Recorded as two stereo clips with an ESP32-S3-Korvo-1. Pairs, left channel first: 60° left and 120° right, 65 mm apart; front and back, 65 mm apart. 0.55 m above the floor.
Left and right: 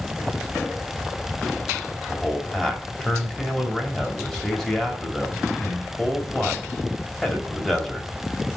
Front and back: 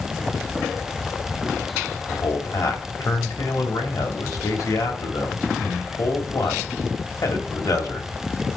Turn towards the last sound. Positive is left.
turn(degrees=-20)